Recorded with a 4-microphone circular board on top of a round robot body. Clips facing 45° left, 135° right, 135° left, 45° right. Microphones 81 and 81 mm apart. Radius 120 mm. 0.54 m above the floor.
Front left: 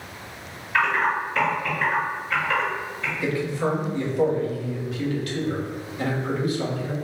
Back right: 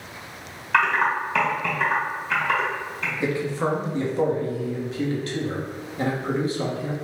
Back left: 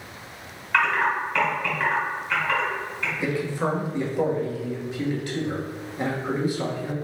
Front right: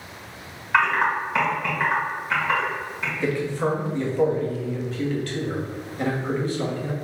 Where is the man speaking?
160° right, 1.4 m.